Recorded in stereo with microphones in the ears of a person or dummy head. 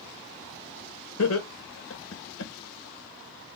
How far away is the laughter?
About 1.6 m.